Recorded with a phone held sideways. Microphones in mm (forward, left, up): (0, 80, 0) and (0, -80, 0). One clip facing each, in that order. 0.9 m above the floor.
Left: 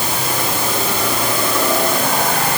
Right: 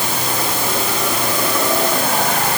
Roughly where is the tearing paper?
I don't hear tearing paper.